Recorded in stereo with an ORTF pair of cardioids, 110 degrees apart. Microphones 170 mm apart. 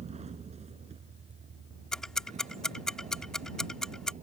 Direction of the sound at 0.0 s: 40° right.